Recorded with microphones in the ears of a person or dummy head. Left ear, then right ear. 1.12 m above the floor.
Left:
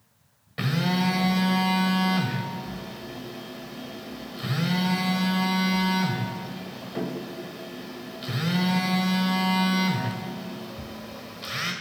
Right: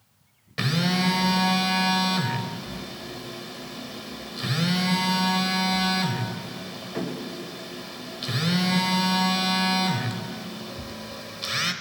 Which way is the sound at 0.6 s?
15° right (ahead or behind).